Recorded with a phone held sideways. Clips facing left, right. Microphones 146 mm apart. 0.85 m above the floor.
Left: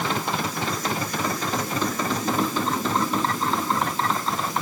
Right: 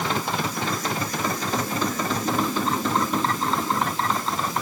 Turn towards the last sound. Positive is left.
No sound to turn to.